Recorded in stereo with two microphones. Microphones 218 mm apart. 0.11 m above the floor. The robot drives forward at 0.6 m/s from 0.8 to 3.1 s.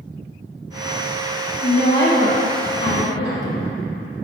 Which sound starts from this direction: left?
A woman speaking, at 1.6 s.